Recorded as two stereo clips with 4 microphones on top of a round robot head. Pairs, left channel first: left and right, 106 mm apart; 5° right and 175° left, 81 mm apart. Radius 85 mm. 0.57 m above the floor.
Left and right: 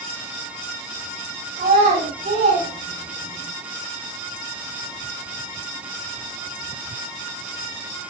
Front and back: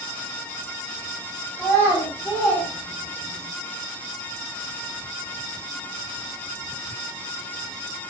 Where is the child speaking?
65° right, 2.5 m; by 3.5 s 70° right, 4 m.